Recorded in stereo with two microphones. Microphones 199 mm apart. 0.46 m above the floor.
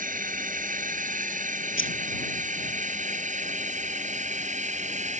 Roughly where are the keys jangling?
Left.